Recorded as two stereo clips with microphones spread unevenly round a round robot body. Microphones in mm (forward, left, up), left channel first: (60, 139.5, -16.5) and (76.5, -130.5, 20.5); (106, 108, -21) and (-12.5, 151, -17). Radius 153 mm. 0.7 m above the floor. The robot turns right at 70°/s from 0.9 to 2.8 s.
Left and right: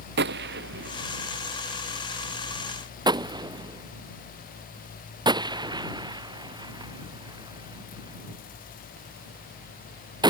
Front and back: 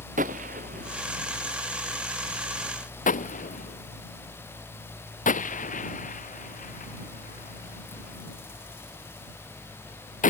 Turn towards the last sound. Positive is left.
turn(degrees=-15)